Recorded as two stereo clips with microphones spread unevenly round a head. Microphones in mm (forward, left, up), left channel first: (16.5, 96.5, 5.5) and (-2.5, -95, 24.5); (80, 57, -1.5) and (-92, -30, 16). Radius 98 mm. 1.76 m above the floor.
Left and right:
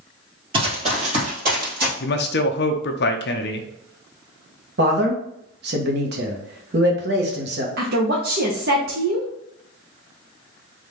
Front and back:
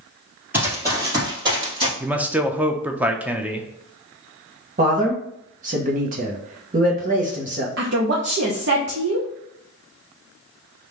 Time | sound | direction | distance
0.5 | running footsteps | 95° right | 1.9 m
2.0 | a man speaking | 125° left | 0.6 m
4.8 | a man speaking | 115° right | 1.2 m
7.8 | a woman speaking | 130° right | 0.8 m